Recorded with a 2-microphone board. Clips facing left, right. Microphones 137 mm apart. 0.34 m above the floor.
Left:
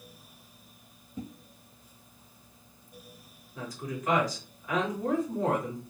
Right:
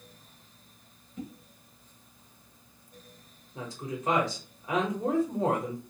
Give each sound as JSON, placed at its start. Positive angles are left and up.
{"t": 1.2, "sound": "a whoosh", "side_deg": 30, "distance_m": 1.1}
{"t": 3.5, "sound": "a woman speaking", "side_deg": -25, "distance_m": 1.0}